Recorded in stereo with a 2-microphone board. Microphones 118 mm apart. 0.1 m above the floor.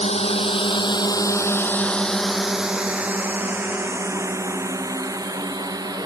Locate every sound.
0.0 s a drone: 60° left (ahead or behind); by 6.1 s 35° right (ahead or behind)